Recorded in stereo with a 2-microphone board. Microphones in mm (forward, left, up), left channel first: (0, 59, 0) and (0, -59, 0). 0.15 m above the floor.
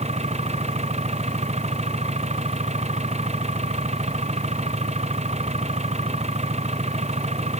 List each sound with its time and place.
0.0 s an engine running: 70° right (ahead or behind)